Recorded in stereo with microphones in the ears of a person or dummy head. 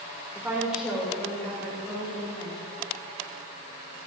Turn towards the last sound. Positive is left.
turn(degrees=15)  # may be behind; listen again after turning